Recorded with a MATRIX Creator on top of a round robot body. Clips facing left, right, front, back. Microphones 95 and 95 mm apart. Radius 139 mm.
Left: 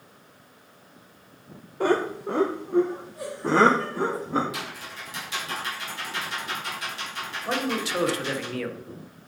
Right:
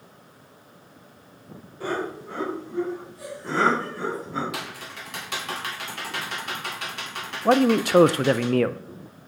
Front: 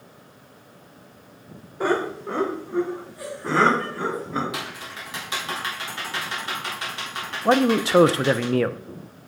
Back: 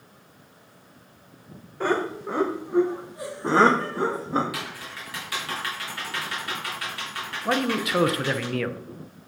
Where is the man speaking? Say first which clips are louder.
Right 10 dB, front 6 dB; 55° right, 0.6 m.